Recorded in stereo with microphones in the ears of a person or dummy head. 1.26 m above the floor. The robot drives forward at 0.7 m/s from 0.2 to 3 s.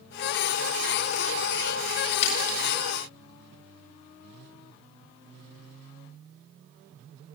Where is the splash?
40° left (ahead or behind), 7.5 m.